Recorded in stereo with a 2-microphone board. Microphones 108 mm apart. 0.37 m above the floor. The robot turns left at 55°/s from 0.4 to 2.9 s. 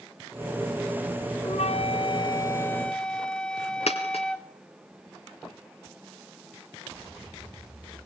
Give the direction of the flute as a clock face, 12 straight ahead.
9 o'clock.